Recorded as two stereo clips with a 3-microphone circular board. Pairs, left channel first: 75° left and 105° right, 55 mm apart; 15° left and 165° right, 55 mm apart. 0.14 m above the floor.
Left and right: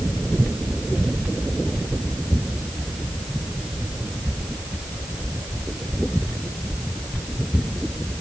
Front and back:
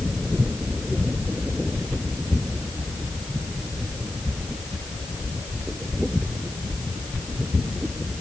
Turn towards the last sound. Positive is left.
No sound to turn to.